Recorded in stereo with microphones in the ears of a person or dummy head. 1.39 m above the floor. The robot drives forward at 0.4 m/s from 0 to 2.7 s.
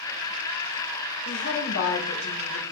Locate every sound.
1.2 s a woman speaking: 80° left, 2.5 m; by 2.6 s 70° left (ahead or behind), 2.5 m